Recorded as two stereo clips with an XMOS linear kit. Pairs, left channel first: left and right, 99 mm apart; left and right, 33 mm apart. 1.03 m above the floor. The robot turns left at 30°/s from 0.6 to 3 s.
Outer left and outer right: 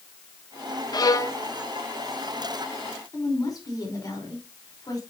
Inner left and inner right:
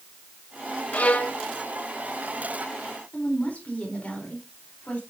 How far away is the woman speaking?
About 3.5 m.